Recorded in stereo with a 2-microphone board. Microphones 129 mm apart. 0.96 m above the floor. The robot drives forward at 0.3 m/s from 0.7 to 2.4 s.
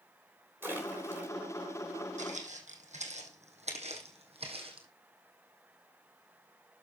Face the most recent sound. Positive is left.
turn(degrees=-45)  # may be behind; listen again after turning